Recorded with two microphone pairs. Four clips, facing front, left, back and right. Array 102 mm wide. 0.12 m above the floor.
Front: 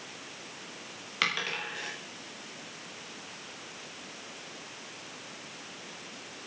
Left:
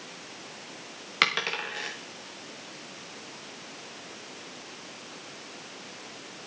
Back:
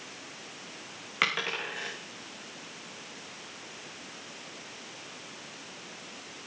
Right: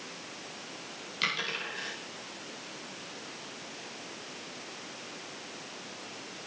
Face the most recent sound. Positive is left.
turn(degrees=110)